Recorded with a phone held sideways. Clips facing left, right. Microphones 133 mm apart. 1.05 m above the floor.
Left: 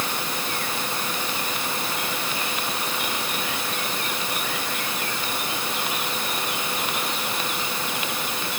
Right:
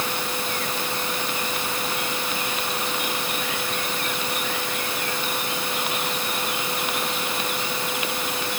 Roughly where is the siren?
No siren in this recording.